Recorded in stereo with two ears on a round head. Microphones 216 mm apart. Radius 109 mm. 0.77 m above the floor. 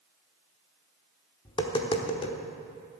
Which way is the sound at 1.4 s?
20° left (ahead or behind).